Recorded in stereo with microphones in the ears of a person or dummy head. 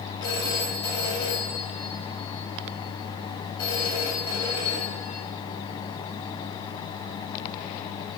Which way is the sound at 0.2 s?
30° left (ahead or behind).